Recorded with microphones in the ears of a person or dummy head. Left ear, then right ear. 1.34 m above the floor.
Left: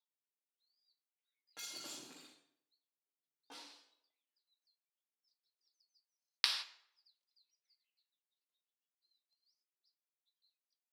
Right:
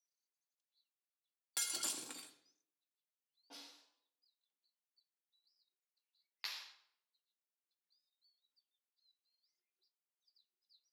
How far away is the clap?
About 0.8 m.